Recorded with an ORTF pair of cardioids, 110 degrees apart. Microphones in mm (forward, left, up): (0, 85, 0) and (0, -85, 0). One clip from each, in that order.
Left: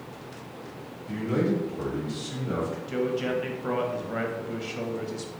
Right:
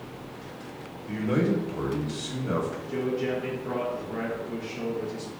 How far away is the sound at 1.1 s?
About 0.9 m.